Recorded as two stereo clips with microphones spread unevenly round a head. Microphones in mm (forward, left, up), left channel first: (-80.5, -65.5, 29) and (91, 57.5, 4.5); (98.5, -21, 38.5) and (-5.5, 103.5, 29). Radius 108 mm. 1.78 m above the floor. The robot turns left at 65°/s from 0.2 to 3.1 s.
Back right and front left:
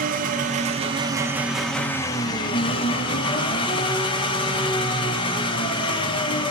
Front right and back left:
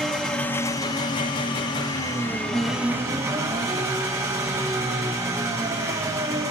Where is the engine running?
25° left, 1.0 m; by 6.5 s 165° right, 1.0 m.